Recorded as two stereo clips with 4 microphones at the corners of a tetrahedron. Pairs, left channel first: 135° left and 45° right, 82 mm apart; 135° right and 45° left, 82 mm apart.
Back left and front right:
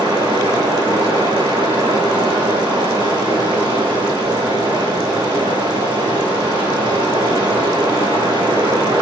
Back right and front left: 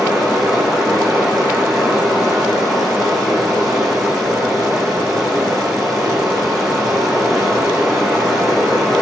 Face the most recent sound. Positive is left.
turn(degrees=-45)